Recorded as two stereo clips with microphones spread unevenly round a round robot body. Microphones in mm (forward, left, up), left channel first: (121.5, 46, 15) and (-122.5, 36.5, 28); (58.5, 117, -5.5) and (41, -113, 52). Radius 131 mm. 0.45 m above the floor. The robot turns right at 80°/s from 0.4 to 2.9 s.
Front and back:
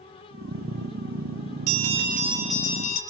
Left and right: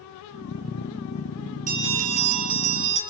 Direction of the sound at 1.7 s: 155° right.